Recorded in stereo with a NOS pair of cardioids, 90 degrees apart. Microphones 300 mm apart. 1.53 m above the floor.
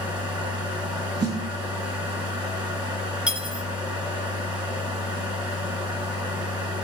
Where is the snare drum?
40° right, 4.5 m.